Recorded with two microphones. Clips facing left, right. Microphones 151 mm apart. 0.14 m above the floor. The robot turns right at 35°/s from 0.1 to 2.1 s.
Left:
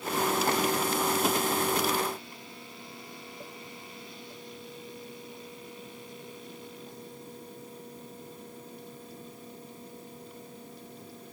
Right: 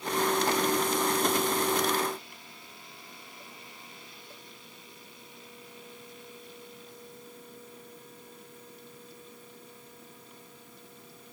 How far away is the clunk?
No clunk in this recording.